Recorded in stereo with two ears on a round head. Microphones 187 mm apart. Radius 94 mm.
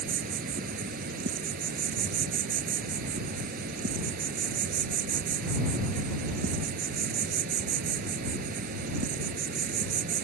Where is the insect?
45° right (ahead or behind).